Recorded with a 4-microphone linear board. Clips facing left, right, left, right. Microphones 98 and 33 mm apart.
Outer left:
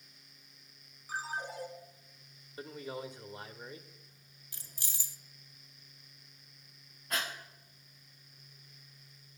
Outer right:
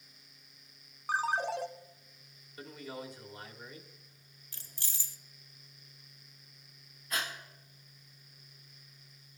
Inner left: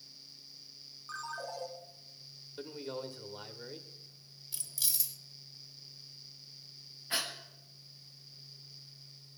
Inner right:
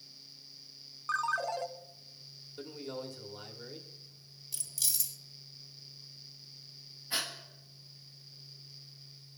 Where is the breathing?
50° left (ahead or behind), 5.5 m.